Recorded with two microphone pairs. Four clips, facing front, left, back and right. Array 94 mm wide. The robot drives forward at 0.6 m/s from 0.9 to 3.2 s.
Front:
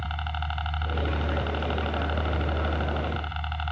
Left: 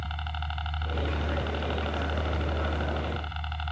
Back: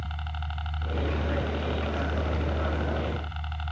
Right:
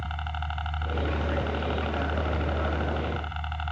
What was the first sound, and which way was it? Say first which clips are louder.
A helicopter: right 2 dB, front 5 dB; 30° right.